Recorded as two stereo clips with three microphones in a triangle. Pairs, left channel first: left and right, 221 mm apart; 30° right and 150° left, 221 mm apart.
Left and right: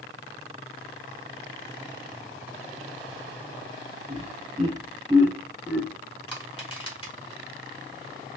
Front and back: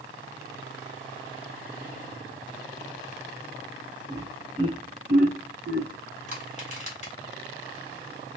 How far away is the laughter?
About 1.4 m.